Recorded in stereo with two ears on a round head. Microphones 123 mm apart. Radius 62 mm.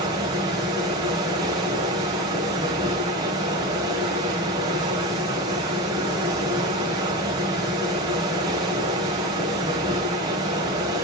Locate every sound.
0.0 s running water: 30° right (ahead or behind), 2 m